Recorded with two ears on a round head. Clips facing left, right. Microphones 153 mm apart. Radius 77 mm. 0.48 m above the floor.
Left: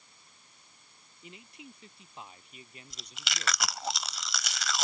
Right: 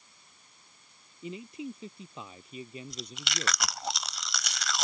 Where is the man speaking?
75° right (ahead or behind).